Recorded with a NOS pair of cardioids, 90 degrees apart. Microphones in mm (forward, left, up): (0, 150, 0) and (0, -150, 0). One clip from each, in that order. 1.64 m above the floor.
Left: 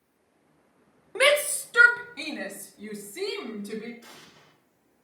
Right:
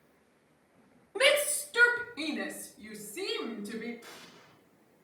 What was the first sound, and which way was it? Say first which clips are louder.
A shout: left 4 dB; 40° left.